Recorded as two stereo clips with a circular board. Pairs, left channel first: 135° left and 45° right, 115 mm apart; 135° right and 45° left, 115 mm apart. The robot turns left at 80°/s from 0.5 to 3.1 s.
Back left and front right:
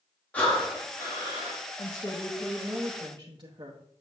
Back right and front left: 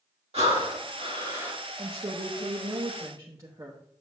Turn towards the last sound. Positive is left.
turn(degrees=-10)